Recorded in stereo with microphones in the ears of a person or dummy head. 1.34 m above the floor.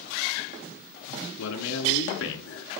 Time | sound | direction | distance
1.4 | a man speaking | 70° left (ahead or behind) | 3.5 m